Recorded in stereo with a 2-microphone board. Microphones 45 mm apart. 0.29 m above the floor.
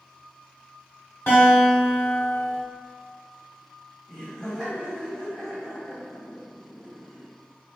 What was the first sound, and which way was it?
A guitar, 50° left (ahead or behind).